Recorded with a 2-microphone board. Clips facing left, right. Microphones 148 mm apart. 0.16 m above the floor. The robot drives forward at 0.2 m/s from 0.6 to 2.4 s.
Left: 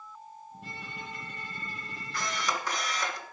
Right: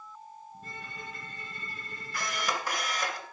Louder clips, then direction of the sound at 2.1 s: Even; 10° right (ahead or behind).